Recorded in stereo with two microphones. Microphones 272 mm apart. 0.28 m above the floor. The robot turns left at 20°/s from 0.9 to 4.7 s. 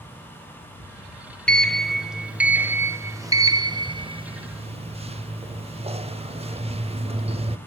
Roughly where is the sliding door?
Centre.